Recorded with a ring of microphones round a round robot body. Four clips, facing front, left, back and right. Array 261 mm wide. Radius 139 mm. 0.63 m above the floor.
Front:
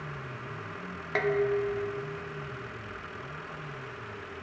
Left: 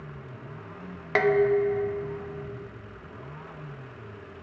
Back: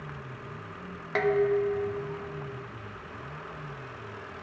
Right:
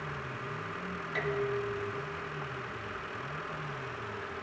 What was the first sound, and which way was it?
Dishes clattering, 90° left.